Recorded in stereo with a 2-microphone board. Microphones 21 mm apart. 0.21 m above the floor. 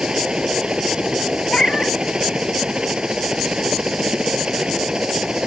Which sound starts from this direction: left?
A cat meowing, at 1.5 s.